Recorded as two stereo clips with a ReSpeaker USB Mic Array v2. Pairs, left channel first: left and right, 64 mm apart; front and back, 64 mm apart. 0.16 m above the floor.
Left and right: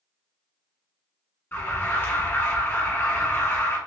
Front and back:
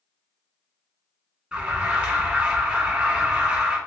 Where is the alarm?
120° left, 1.1 m.